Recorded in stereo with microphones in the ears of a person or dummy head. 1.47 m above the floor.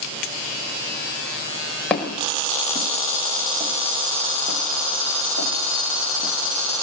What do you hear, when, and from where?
1.9 s footsteps: centre (ahead or behind), 5 m; by 6.3 s 70° right (ahead or behind), 4 m